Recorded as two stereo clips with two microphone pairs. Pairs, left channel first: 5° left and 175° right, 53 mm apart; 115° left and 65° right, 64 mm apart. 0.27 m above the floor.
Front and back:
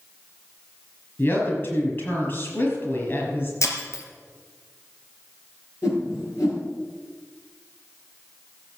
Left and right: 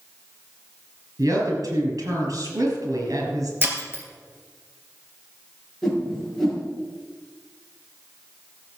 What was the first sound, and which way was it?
A woman speaking, 40° right.